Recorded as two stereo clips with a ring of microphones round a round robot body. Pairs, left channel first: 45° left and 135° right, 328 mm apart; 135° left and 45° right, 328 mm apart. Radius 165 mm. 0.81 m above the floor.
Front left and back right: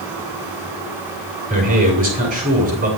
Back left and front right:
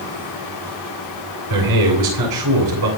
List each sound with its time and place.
1.5 s a man speaking: 70° right, 9 m